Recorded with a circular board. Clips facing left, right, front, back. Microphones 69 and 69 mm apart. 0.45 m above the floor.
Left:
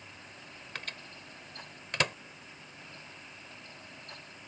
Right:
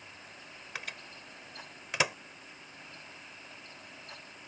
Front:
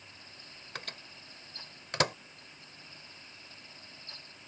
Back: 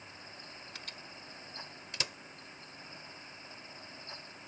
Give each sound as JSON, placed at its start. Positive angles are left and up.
{"t": 0.8, "sound": "a microwave", "azimuth_deg": -10}